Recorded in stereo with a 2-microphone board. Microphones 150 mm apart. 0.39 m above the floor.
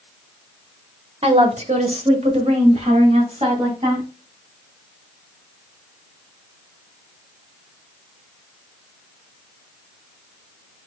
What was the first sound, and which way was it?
A woman speaking, 45° right (ahead or behind).